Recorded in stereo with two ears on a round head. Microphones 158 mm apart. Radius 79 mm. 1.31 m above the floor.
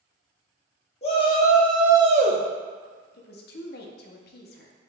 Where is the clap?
No clap in this recording.